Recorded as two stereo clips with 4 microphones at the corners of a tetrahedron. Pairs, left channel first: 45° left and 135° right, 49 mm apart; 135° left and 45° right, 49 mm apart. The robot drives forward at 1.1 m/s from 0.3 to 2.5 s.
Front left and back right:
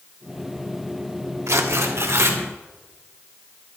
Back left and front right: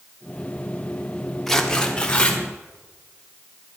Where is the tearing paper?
140° right, 1.2 m; by 2.4 s 160° right, 2 m.